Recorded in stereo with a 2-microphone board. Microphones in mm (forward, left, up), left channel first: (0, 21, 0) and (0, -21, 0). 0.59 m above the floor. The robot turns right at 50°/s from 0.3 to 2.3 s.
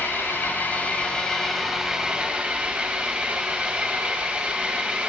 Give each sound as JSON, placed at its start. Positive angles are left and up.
{"t": 0.0, "sound": "an engine running", "azimuth_deg": 115, "distance_m": 3.0}